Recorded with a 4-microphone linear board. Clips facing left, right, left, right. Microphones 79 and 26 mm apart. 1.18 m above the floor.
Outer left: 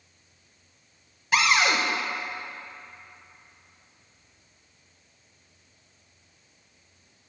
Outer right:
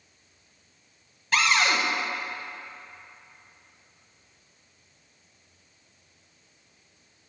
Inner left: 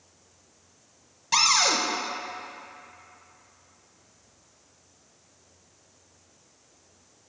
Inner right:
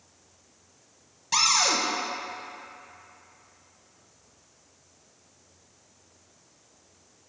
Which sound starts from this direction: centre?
A cupboard door, at 1.3 s.